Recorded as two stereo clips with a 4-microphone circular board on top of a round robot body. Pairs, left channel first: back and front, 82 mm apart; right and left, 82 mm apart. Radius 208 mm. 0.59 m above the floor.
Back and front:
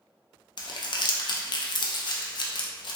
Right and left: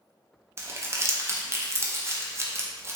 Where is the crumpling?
150° left, 0.5 m.